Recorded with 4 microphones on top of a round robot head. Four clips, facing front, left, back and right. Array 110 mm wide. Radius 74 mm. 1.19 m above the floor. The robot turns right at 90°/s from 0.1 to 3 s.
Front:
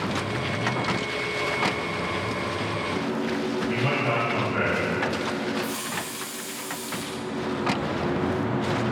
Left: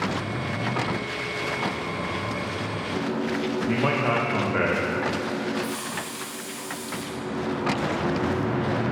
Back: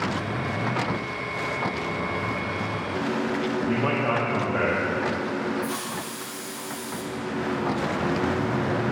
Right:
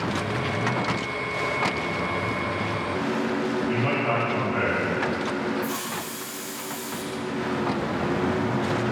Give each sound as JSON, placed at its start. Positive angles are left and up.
{"t": 3.7, "sound": "a man speaking", "azimuth_deg": 120, "distance_m": 1.7}
{"t": 5.6, "sound": "a hiss", "azimuth_deg": -135, "distance_m": 1.0}